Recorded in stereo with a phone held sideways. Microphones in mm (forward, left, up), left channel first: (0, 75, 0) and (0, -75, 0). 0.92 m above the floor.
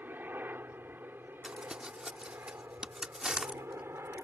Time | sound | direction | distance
0.0 | a helicopter | 10° right (ahead or behind) | ?
1.4 | crumpling | 5° right (ahead or behind) | ?